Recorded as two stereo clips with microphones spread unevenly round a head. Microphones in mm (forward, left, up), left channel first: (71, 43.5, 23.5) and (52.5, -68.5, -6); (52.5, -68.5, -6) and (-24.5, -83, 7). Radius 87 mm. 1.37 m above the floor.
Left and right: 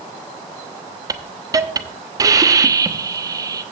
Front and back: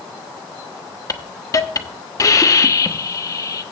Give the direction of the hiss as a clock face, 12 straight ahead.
1 o'clock.